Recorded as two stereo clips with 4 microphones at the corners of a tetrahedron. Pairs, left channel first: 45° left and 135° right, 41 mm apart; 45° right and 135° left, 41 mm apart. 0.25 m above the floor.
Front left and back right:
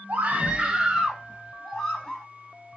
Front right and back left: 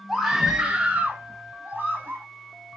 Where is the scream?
135° right, 1.1 m; by 2.2 s 120° left, 1.6 m.